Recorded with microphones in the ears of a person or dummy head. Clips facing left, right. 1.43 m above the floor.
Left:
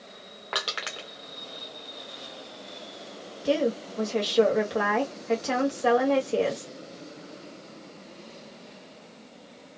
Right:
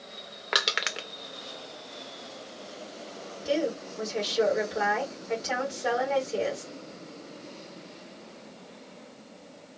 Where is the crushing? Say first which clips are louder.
Right 2 dB; 35° right (ahead or behind), 0.5 m.